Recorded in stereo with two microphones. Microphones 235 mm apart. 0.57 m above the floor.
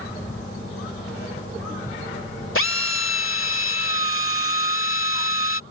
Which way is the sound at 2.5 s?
65° left (ahead or behind).